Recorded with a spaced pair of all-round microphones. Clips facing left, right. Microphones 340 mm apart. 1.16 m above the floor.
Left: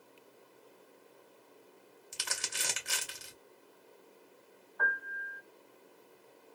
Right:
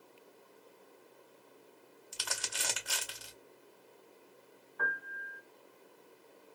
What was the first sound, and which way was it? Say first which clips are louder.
Crumpling: right 1 dB; 35° left (ahead or behind).